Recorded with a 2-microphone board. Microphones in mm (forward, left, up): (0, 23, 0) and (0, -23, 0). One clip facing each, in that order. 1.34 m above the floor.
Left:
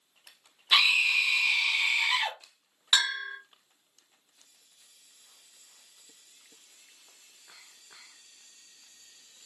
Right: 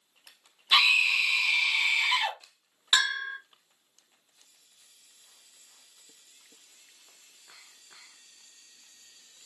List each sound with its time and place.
0.7 s a scream: 5° left (ahead or behind), 0.8 m
2.9 s a bell: 15° right (ahead or behind), 1.7 m